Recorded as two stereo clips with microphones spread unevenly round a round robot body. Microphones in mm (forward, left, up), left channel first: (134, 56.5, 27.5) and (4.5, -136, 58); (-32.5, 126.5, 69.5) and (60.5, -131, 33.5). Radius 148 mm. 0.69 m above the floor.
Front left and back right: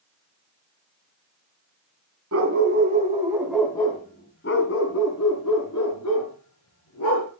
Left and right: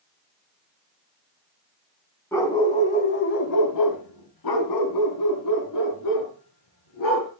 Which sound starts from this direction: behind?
A dog barking, at 2.3 s.